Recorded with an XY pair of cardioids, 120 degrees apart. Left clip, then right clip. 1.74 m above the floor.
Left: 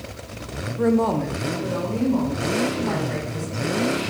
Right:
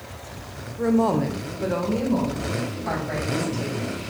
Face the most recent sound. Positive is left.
turn(degrees=-75)